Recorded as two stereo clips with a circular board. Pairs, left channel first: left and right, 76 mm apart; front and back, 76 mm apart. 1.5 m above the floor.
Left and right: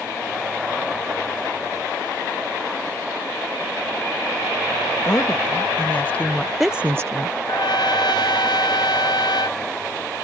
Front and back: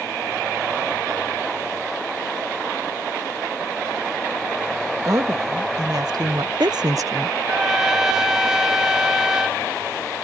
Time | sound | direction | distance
5.0 | a woman speaking | 140° left | ?
7.5 | a trumpet | 100° left | ?